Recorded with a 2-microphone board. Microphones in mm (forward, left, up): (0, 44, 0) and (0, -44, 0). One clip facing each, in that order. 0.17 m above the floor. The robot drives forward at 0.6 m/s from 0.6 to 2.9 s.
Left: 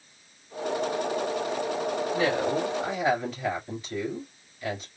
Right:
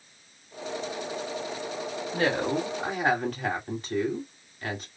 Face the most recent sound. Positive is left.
turn(degrees=-50)  # may be behind; listen again after turning